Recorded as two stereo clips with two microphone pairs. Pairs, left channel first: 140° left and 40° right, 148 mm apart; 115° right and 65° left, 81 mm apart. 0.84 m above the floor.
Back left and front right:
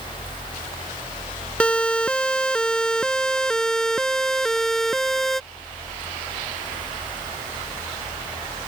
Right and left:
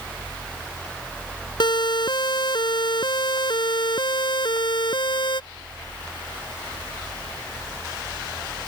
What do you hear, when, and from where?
1.6 s a siren: 140° right; by 5.4 s 135° right